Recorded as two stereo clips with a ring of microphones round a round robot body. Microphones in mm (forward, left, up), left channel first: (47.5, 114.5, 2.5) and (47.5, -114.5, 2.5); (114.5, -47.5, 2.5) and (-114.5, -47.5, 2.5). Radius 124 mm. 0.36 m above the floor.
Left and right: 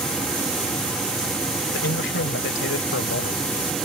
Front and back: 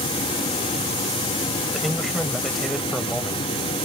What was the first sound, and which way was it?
A man speaking, 90° left.